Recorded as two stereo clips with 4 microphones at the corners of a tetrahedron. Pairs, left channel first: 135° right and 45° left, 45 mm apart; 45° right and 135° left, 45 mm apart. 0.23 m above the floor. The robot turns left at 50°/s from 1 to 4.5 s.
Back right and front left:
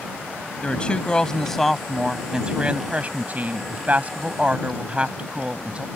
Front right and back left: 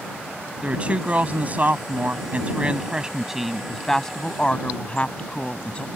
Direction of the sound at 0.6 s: 175° left.